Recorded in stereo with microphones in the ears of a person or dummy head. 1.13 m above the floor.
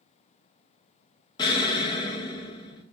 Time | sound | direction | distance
1.4 | an explosion | 25° left (ahead or behind) | 0.6 m